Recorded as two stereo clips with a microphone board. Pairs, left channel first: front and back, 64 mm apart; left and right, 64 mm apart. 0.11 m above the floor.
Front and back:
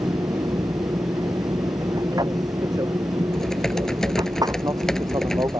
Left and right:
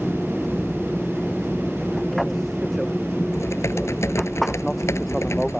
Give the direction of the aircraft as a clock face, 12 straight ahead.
6 o'clock.